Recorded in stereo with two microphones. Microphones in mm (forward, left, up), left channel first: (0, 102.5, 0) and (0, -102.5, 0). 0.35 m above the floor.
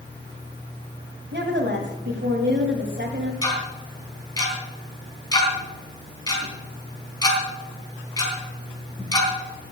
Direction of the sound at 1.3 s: 60° right (ahead or behind).